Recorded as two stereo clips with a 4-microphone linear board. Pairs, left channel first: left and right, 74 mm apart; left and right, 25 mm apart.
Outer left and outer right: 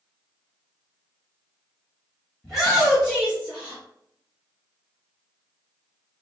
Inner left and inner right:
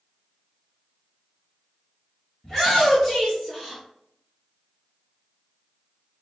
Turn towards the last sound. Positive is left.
turn(degrees=-10)  # may be behind; listen again after turning